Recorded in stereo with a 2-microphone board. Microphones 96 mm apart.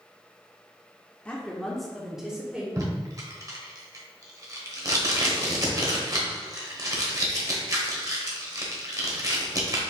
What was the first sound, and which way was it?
A woman speaking, 10° left (ahead or behind).